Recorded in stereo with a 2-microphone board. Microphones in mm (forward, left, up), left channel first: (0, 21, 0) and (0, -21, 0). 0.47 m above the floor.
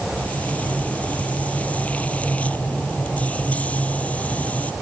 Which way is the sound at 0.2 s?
35° left (ahead or behind).